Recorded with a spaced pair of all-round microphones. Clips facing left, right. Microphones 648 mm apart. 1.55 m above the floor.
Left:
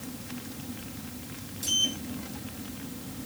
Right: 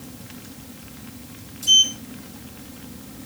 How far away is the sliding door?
About 1.2 m.